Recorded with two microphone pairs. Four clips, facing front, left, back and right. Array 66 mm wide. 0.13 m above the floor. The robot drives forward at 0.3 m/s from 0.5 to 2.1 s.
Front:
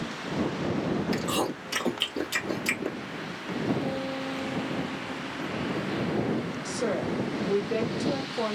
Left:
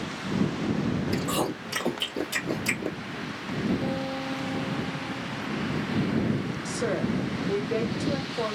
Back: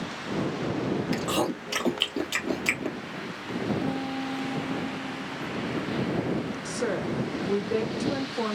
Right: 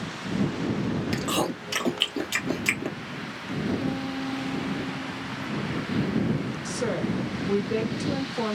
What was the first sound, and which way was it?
Chewing, 140° right.